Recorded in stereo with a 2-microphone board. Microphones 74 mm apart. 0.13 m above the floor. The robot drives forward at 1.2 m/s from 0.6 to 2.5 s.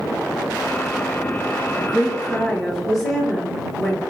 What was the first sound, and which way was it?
A woman speaking, 5° right (ahead or behind).